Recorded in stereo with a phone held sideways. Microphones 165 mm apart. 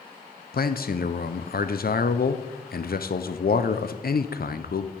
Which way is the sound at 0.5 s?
65° left (ahead or behind).